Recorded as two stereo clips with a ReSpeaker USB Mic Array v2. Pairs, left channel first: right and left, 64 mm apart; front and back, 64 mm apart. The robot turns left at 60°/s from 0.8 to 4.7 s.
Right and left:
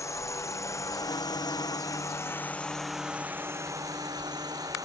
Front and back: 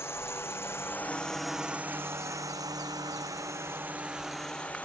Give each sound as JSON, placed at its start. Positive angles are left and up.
{"t": 0.0, "sound": "a drone", "azimuth_deg": -50}